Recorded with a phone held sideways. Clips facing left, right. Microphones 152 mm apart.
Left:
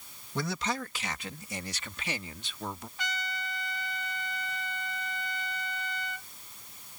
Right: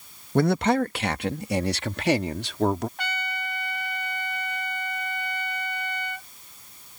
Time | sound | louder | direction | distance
0.3 | a man speaking | right 13 dB | 55° right (ahead or behind) | ?
3.0 | a trumpet | right 5 dB | 60° right (ahead or behind) | ?